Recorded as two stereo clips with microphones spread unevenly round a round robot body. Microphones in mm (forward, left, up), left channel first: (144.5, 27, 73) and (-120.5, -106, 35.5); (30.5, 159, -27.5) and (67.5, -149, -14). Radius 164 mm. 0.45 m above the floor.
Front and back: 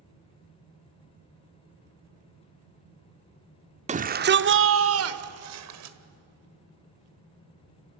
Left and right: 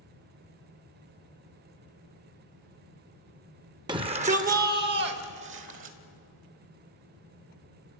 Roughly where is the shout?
Behind right.